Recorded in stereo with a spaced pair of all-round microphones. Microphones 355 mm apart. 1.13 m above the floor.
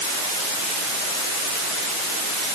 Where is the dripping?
I don't hear dripping.